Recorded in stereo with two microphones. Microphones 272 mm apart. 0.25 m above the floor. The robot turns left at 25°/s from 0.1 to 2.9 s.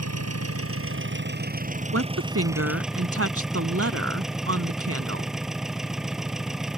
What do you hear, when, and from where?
0.0 s an engine running: 110° right; by 6.8 s straight behind
1.9 s a woman speaking: 60° right (ahead or behind); by 5.3 s 55° right (ahead or behind)